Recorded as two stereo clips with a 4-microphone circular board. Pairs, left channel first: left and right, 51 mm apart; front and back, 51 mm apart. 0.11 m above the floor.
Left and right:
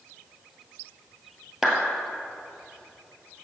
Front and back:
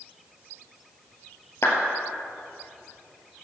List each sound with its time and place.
1.6 s a clap: 5° right, 2.5 m